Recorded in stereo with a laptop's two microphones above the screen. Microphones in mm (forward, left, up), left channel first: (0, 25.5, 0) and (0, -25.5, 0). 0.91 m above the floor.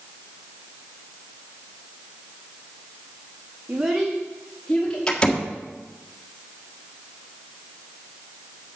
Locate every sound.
3.7 s a child speaking: 35° right (ahead or behind), 0.8 m; by 5.0 s 20° left (ahead or behind), 1.8 m
5.1 s a door slam: 20° left (ahead or behind), 1.6 m